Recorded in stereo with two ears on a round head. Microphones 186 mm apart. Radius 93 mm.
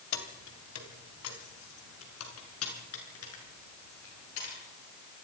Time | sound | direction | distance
0.1 | keys jangling | 75° left (ahead or behind) | 2.5 m